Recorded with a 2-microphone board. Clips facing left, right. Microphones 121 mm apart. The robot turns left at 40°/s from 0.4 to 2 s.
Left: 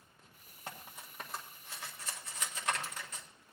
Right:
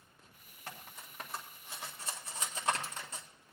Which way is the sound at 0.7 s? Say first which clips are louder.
Left 1 dB; 25° left (ahead or behind).